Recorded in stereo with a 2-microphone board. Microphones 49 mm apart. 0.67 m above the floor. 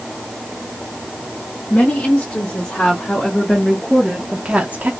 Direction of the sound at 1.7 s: 30° left (ahead or behind).